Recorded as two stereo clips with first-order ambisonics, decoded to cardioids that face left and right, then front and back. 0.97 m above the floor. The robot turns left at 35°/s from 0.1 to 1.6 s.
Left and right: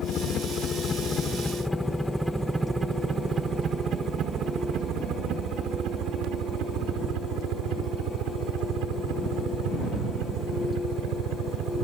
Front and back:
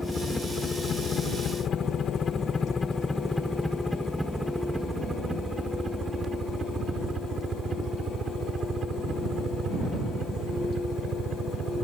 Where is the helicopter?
85° left; by 11.8 s 120° right.